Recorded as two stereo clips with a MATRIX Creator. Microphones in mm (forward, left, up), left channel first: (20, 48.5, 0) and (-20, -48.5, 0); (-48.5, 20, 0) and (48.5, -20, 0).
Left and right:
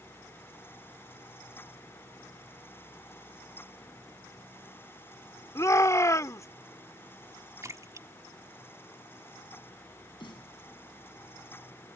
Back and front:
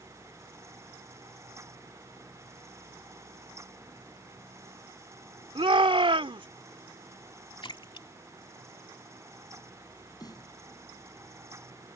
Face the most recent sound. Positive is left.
turn(degrees=105)